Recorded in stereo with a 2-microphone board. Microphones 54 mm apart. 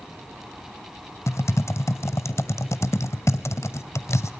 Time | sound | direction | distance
1.3 | typing on a keyboard | 60° left (ahead or behind) | 0.9 m